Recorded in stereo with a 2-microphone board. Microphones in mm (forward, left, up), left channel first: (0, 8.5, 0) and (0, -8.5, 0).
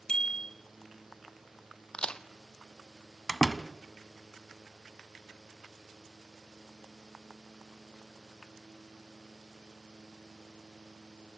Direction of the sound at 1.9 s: 90° left.